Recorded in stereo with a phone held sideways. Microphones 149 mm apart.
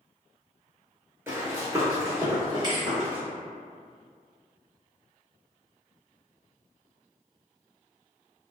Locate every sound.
1.3 s running footsteps: 20° right (ahead or behind), 0.9 m; by 3.2 s 25° right (ahead or behind), 1.6 m
2.6 s a thud: 30° right (ahead or behind), 0.7 m